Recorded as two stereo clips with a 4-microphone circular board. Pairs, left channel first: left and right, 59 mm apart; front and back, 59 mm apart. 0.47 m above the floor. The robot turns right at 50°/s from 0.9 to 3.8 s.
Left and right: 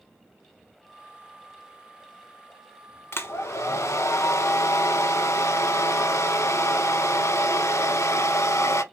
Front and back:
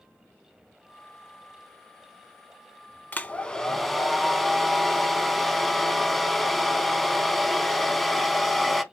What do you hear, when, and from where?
3.1 s a hair dryer: 55° left, 0.5 m; by 8.8 s 85° left, 0.5 m